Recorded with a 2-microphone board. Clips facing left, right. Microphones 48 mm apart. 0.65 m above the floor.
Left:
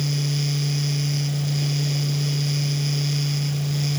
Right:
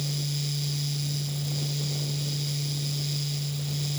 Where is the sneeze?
No sneeze in this recording.